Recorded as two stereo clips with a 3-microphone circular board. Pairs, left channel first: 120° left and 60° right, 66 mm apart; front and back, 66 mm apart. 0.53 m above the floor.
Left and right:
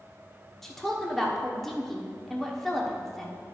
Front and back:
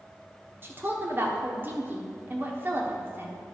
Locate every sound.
0.6 s a woman speaking: 155° right, 1.3 m